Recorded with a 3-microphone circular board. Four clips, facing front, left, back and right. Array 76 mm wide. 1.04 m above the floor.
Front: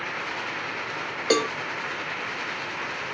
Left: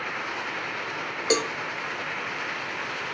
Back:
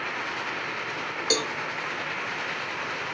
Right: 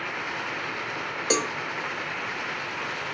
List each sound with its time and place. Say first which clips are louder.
1.3 s a cowbell: left 2 dB, front 7 dB; 5° left, 0.6 m